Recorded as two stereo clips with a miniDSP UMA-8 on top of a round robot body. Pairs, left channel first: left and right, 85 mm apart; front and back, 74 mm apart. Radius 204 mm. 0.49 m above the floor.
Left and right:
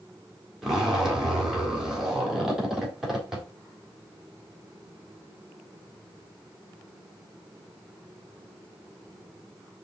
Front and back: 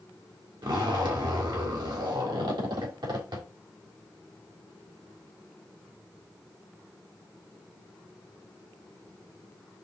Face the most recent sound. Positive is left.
turn(degrees=-175)